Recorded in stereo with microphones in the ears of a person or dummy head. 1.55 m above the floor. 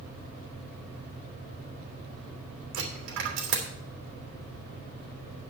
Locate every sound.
2.7 s a dropped coin: 65° right (ahead or behind), 3 m